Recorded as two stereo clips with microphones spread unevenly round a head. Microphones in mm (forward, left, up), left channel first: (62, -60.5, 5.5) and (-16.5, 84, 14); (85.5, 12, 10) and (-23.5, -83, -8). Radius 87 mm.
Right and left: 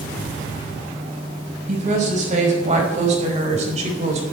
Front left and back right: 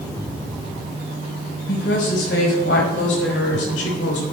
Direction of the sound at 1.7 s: 75° left.